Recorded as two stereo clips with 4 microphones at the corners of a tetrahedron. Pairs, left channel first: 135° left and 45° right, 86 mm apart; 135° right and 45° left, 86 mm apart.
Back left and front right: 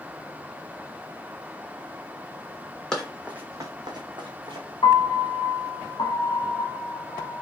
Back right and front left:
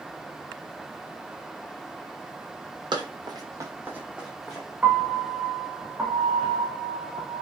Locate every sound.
2.9 s running footsteps: 55° left, 0.7 m; by 4.7 s 45° right, 1.0 m
4.8 s a piano: 115° left, 0.6 m